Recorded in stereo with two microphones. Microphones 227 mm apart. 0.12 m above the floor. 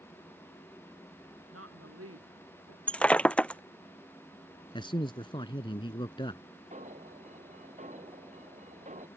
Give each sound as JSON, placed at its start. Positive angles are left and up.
{"t": 1.5, "sound": "a woman speaking", "side_deg": -80}
{"t": 2.9, "sound": "breaking glass", "side_deg": 5}
{"t": 4.7, "sound": "a man speaking", "side_deg": 20}
{"t": 6.7, "sound": "an alarm", "side_deg": -30}